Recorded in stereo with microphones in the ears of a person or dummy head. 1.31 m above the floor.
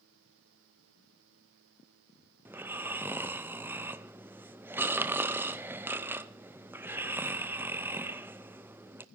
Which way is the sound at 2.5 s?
10° right (ahead or behind).